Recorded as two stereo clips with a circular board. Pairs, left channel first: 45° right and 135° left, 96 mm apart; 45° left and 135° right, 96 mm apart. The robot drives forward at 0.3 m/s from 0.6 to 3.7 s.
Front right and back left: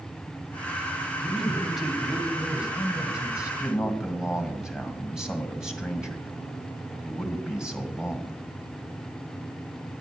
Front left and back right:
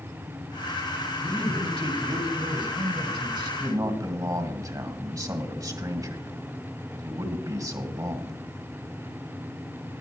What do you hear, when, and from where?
1.2 s a man speaking: 130° right, 1.7 m; by 3.5 s 145° right, 2 m
3.6 s a man speaking: 145° right, 1.9 m